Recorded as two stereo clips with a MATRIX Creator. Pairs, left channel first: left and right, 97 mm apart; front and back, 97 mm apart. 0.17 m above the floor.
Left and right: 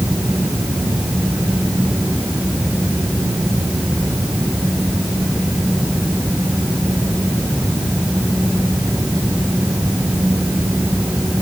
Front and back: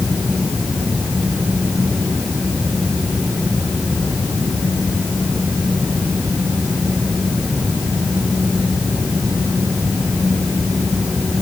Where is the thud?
I don't hear a thud.